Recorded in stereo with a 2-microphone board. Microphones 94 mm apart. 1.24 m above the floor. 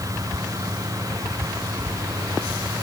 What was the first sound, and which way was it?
Only background noise.